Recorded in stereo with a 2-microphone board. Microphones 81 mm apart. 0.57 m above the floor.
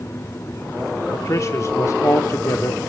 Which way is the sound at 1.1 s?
40° left (ahead or behind).